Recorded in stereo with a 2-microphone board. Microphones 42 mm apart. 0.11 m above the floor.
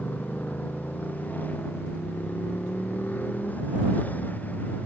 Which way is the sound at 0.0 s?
40° left (ahead or behind).